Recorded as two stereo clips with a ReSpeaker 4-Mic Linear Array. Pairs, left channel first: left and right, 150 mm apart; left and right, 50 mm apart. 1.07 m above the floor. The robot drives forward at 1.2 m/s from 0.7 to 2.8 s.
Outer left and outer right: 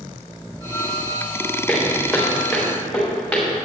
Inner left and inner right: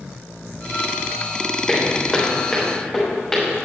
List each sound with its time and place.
1.7 s footsteps: 5° left (ahead or behind), 3 m